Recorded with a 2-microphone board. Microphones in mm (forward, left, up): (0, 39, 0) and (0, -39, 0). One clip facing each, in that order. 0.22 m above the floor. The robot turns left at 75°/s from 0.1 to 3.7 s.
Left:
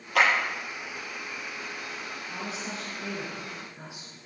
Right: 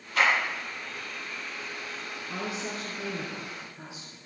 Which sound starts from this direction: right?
A woman speaking, at 2.3 s.